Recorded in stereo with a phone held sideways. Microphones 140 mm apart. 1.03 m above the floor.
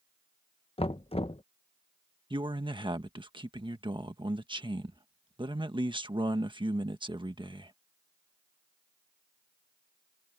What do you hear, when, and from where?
0.8 s knocking: 45° left (ahead or behind)
2.3 s a man speaking: 35° right (ahead or behind)